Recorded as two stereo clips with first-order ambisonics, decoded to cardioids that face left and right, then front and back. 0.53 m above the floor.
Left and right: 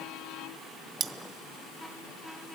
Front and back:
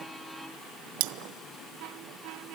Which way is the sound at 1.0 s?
160° right.